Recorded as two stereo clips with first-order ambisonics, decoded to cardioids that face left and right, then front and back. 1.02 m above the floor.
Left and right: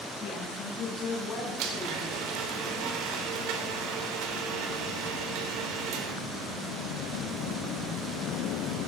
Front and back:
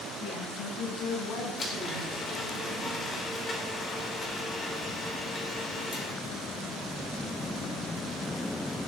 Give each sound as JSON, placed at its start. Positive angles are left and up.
{"t": 0.2, "sound": "a woman speaking", "azimuth_deg": 40, "distance_m": 7.5}
{"t": 1.6, "sound": "a blender", "azimuth_deg": -70, "distance_m": 3.5}